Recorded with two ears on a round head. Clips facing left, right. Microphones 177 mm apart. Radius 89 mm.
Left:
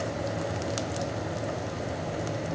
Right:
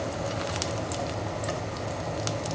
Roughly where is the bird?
I don't hear a bird.